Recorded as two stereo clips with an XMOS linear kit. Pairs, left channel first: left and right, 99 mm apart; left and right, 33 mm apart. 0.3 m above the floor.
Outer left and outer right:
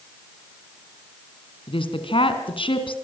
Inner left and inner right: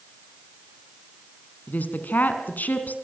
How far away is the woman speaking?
About 3.5 m.